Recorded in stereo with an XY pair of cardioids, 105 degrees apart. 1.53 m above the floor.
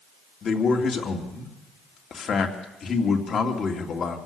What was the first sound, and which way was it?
A man speaking, 50° left.